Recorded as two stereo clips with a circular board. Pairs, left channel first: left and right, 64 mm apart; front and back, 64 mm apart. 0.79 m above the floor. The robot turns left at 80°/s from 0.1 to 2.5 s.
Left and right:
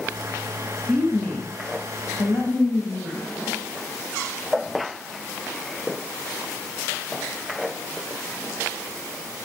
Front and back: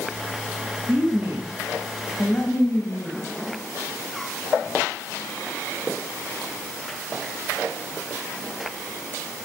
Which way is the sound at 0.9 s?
175° left.